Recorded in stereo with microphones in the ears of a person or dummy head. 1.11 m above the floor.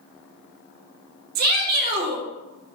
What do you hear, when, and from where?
1.4 s a shout: 55° right (ahead or behind), 1.9 m